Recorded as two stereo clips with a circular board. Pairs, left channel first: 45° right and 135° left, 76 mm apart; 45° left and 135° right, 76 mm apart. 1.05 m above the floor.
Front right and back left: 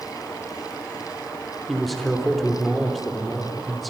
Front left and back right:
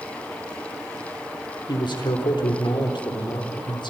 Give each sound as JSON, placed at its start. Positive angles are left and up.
{"t": 1.7, "sound": "a man speaking", "azimuth_deg": 45, "distance_m": 3.5}